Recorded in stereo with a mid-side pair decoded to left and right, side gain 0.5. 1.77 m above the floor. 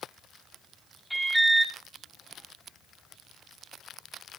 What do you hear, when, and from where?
1.1 s an alarm: 5° right, 5.5 m